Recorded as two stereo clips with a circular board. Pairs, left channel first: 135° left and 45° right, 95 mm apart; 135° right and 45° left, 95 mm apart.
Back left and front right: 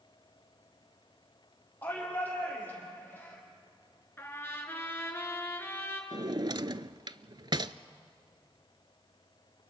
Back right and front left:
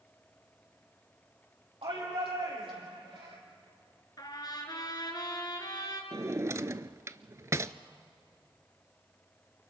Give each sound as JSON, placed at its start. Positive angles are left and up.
{"t": 1.8, "sound": "a shout", "azimuth_deg": 65, "distance_m": 7.5}
{"t": 4.2, "sound": "a trumpet", "azimuth_deg": -165, "distance_m": 3.0}
{"t": 6.1, "sound": "a drawer", "azimuth_deg": -10, "distance_m": 0.5}